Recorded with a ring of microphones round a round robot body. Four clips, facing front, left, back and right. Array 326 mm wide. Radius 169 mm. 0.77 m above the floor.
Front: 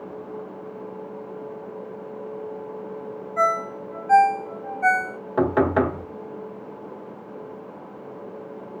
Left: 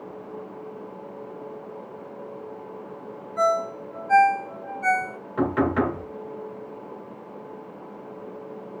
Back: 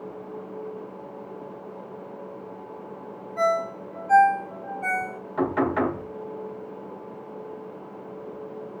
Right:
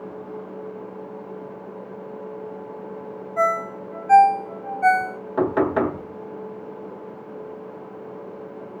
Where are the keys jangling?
I don't hear keys jangling.